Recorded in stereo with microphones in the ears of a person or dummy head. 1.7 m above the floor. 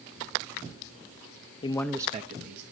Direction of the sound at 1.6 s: 30° left (ahead or behind).